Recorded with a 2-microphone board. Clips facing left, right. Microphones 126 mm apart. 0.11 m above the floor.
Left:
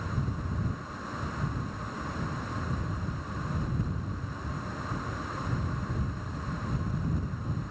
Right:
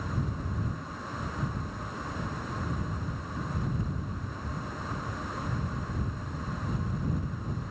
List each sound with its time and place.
Only background noise.